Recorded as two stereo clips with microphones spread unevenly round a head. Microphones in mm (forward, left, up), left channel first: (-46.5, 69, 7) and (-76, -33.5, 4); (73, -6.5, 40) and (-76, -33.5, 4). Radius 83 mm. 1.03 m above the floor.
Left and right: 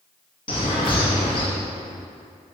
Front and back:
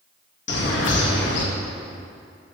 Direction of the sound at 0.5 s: 20° left.